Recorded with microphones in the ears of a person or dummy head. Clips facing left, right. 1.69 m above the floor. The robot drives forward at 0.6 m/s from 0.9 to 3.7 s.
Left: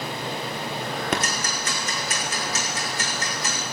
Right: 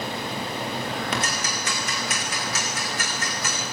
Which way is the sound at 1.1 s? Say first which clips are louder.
Left 1 dB; 40° left (ahead or behind).